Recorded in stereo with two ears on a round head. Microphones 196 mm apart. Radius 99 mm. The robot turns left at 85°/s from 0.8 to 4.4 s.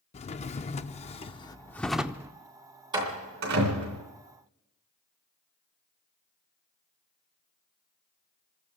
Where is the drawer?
100° left, 0.5 m; by 2.3 s 30° right, 0.5 m.